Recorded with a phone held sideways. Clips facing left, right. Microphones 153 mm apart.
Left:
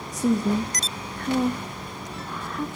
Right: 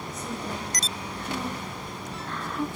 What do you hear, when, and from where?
0.1 s a woman speaking: 85° left, 1.7 m; by 2.7 s 5° right (ahead or behind), 1.0 m